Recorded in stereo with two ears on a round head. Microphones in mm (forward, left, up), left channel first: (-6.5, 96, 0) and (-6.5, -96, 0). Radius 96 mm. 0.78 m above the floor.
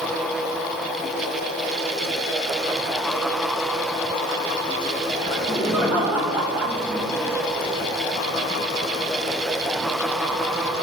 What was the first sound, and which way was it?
Laughter, 5° right (ahead or behind).